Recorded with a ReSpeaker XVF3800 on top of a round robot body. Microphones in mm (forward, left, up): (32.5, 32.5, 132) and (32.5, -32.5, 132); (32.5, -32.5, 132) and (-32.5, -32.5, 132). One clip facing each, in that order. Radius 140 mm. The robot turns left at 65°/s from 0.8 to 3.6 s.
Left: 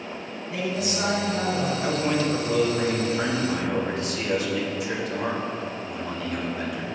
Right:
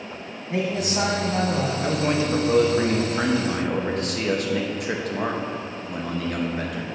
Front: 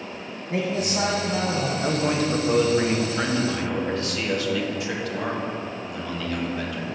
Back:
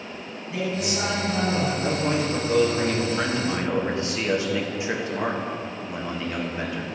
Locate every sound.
0.5 s a man speaking: 35° right, 2 m; by 1.7 s 95° right, 2 m
1.8 s a man speaking: straight ahead, 1.3 m; by 6.8 s 115° right, 1.3 m